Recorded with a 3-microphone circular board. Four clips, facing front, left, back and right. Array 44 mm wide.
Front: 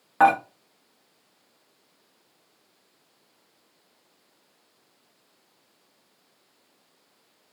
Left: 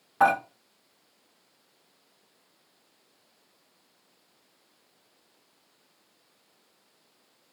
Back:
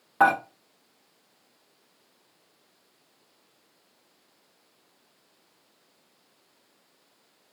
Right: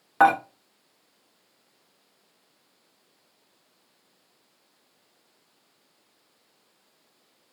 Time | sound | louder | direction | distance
0.2 | dishes clattering | right 3 dB, front 2 dB | 70° right | 1.5 m